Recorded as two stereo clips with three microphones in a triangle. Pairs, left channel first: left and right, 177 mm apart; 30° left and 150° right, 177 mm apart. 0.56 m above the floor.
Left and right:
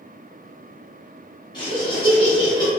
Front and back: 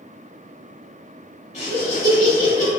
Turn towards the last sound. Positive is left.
turn(degrees=40)